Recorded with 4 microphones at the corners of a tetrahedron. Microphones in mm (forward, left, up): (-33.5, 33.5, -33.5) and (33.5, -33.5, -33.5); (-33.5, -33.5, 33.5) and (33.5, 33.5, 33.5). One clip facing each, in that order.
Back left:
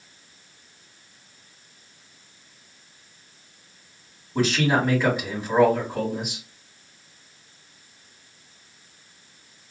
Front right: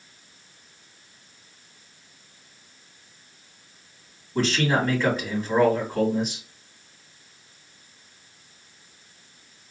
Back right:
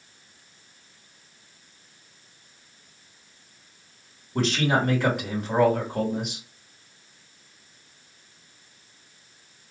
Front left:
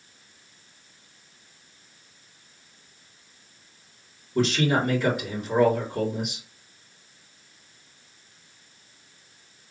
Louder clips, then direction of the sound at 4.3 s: Back left 1 dB, front left 1 dB; 150° right.